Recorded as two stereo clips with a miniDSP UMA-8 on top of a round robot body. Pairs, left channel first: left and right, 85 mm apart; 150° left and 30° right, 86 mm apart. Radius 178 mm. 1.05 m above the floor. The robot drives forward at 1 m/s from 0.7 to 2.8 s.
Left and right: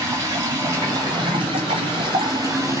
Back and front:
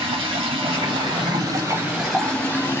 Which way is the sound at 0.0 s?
35° right.